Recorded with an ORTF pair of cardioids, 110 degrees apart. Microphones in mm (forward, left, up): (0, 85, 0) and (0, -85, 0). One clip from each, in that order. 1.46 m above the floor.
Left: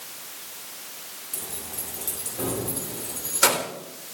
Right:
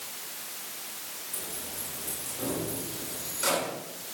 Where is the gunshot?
No gunshot in this recording.